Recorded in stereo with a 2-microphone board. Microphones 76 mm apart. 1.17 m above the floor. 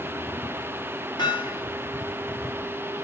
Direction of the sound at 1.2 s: 65° left (ahead or behind).